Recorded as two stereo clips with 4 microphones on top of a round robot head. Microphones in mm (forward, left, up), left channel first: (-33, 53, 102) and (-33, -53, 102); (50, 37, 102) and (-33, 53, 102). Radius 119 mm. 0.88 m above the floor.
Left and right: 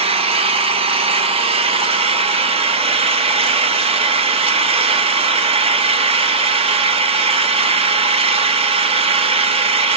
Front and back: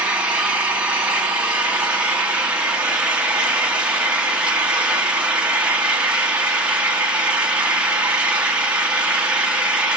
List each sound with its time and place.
0.0 s an engine running: 115° right, 0.9 m